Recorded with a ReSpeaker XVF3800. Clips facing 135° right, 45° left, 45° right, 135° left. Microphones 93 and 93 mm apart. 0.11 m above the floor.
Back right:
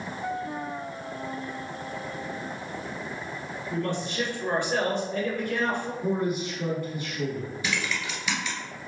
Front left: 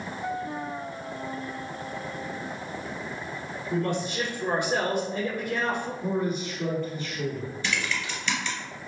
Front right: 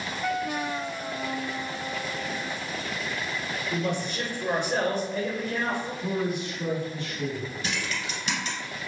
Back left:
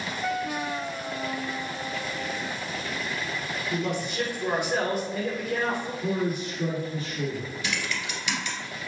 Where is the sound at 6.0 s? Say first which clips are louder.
Back right 1 dB, back left 2 dB; 145° left, 1.9 m.